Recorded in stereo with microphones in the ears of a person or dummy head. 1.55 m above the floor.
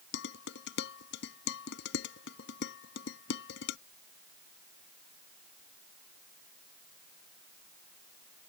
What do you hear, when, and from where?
0.1 s dishes clattering: 75° left (ahead or behind)